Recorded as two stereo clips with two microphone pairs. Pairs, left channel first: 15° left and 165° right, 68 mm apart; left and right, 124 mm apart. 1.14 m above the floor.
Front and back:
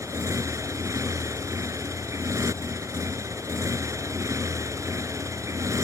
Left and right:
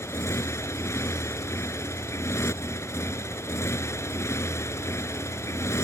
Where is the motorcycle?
155° left.